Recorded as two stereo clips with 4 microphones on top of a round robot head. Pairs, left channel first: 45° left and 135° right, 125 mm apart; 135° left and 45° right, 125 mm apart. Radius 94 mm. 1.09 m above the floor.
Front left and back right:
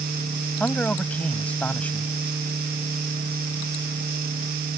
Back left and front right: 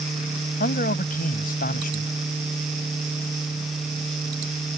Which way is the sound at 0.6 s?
125° left.